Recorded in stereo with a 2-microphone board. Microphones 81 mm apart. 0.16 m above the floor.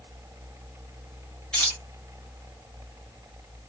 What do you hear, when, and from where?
1.5 s keys jangling: 10° left (ahead or behind), 1.3 m